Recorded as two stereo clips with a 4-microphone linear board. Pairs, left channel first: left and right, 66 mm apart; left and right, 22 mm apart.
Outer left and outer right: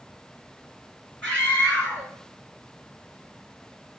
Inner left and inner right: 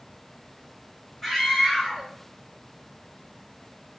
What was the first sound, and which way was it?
A scream, 20° left (ahead or behind).